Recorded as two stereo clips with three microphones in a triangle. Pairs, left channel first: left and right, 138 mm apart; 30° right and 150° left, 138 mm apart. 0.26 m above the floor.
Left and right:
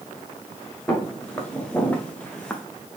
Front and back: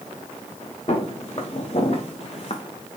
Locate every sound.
0.9 s footsteps: 10° left, 2 m